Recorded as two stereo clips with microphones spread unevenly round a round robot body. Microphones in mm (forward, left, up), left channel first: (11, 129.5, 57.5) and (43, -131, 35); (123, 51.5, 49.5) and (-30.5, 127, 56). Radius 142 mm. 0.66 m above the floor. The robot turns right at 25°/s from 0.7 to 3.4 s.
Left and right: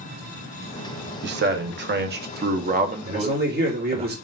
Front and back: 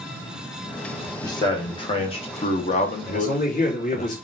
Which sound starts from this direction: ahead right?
A man speaking, at 3.1 s.